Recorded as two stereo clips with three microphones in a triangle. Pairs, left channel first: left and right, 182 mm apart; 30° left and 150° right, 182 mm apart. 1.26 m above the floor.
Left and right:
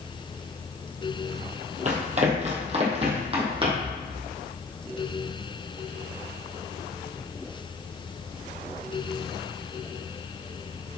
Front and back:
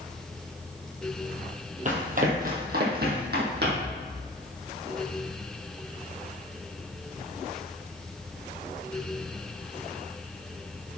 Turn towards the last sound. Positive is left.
turn(degrees=-150)